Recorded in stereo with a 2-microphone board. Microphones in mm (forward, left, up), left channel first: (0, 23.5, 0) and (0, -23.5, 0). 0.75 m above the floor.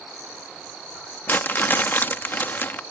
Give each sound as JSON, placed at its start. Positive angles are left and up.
{"t": 1.3, "sound": "crumpling", "side_deg": 45}